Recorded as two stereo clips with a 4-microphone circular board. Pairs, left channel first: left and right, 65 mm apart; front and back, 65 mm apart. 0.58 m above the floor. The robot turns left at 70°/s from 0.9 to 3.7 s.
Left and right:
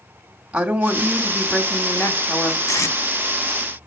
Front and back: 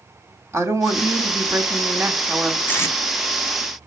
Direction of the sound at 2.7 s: 60° left.